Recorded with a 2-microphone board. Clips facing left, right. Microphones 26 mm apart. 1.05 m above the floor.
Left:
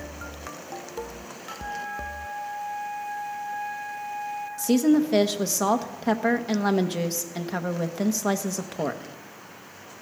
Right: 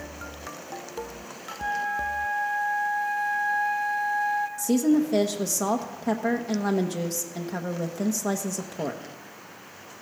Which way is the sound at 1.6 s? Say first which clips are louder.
Right 6 dB; 65° right (ahead or behind).